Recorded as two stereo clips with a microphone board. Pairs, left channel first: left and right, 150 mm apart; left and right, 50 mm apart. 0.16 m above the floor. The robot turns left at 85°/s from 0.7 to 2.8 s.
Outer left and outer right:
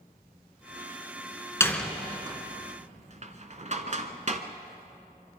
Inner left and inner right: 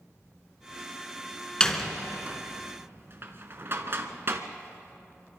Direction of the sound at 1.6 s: 15° left (ahead or behind).